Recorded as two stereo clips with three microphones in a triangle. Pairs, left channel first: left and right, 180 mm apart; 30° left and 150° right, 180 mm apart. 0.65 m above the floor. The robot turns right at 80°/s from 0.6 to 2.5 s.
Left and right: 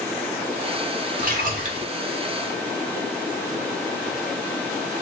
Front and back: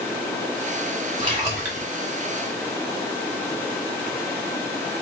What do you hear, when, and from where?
1.2 s a splash: 105° right, 1.5 m; by 1.9 s 50° right, 1.5 m